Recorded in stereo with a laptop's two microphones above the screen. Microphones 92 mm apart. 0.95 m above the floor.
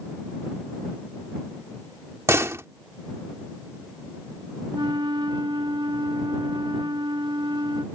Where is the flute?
60° right (ahead or behind).